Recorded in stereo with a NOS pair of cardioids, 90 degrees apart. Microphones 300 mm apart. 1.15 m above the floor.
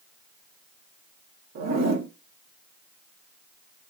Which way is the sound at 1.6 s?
65° right.